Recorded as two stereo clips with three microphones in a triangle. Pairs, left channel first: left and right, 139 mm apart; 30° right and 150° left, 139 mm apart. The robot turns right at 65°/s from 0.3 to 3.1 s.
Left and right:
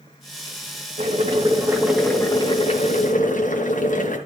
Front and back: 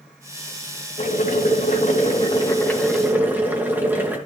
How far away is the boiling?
About 3 m.